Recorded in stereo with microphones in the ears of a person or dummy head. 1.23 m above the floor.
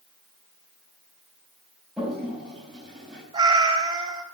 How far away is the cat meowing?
About 3 m.